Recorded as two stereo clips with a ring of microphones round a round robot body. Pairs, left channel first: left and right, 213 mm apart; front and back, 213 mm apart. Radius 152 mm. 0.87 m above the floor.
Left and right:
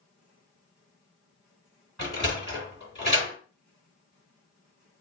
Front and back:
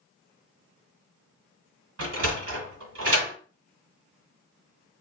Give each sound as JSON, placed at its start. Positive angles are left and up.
{"t": 2.0, "sound": "a sliding door", "azimuth_deg": 180, "distance_m": 2.5}